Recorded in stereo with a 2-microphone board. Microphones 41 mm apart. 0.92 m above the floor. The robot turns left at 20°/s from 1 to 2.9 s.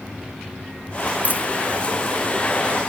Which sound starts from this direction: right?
A dropped coin, at 1.2 s.